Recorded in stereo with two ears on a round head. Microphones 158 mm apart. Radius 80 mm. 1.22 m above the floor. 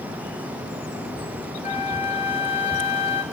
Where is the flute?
35° left (ahead or behind), 2.5 m.